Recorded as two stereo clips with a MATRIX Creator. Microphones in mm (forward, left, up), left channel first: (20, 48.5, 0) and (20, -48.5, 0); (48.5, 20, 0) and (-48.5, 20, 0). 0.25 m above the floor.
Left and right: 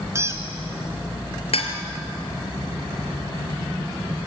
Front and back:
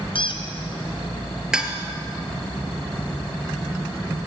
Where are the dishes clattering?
100° left, 3 m.